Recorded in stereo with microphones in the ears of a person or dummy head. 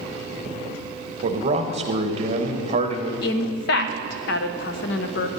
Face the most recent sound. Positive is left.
turn(degrees=70)  # may be behind; listen again after turning